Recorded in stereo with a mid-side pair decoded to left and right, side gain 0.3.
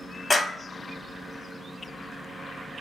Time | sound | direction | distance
0.3 | a clap | 35° left | 1.1 m